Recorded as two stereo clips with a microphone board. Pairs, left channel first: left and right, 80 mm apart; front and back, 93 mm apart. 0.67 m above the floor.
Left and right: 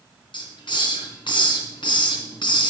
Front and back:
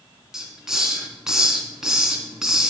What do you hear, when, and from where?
0.3 s a hiss: 95° left, 2.5 m